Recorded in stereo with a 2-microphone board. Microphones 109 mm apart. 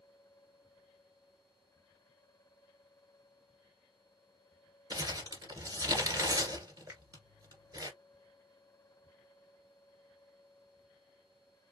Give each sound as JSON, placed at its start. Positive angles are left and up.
{"t": 4.9, "sound": "crumpling", "side_deg": -35, "distance_m": 1.9}
{"t": 6.9, "sound": "a finger snap", "side_deg": -20, "distance_m": 1.9}